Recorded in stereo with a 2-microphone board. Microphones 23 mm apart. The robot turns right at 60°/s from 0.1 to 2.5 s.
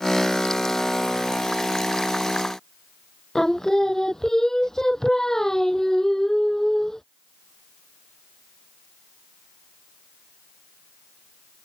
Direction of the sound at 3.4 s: 25° left (ahead or behind).